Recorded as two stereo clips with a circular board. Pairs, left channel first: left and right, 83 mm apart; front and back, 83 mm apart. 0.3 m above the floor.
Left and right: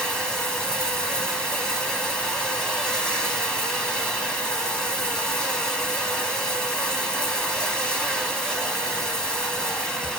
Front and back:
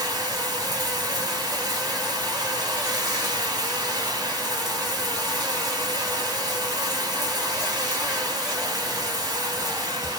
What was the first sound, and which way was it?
Running water, 170° left.